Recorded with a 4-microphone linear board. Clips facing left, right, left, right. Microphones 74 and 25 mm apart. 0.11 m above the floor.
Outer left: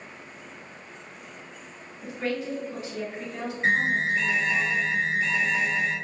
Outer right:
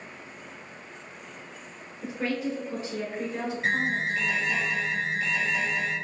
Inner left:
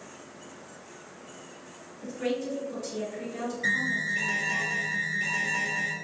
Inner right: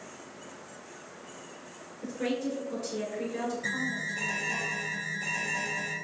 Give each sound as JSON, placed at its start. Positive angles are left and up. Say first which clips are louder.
{"t": 2.0, "sound": "a woman speaking", "louder": "even, inner left 1 dB", "side_deg": -25, "distance_m": 1.9}
{"t": 3.6, "sound": "an alarm", "louder": "outer left 5 dB, inner left 5 dB", "side_deg": 30, "distance_m": 1.0}